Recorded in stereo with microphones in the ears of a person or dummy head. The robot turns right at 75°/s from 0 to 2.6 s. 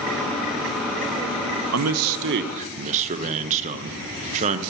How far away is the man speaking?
About 0.7 m.